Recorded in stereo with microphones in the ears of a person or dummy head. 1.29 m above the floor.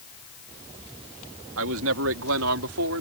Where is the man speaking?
70° right (ahead or behind); by 3.0 s 75° right (ahead or behind).